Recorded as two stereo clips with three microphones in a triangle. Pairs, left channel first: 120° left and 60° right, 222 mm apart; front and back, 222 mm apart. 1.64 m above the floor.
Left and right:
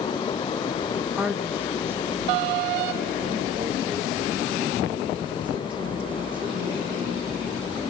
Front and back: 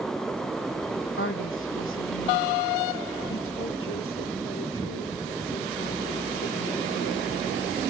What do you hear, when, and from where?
1.2 s a woman speaking: 25° left, 2 m; by 7.5 s 5° left, 7.5 m